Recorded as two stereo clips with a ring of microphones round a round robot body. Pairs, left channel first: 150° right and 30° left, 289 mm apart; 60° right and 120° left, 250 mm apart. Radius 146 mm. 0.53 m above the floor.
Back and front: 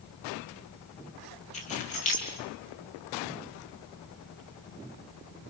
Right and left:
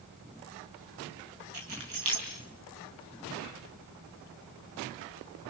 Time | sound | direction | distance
1.5 | keys jangling | 145° left | 6 m